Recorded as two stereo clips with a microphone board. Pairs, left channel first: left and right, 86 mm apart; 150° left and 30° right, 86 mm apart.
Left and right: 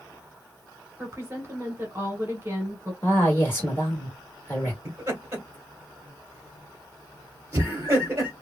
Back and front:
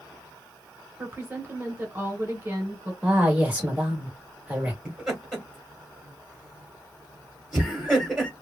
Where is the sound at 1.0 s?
65° right, 1.4 m.